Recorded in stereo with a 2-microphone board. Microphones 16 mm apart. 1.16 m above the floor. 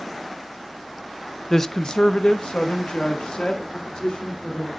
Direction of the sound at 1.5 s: 20° left (ahead or behind).